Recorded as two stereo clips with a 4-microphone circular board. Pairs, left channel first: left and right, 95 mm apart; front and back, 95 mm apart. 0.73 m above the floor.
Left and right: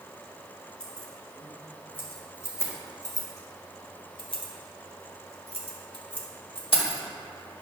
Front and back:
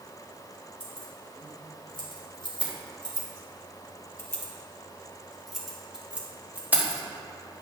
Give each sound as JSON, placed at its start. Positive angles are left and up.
{"t": 0.8, "sound": "keys jangling", "azimuth_deg": 10, "distance_m": 2.5}